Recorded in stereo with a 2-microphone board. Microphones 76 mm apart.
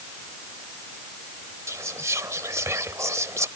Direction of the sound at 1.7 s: 40° right (ahead or behind).